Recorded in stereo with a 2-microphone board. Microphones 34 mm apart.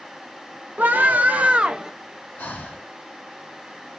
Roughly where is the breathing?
Left.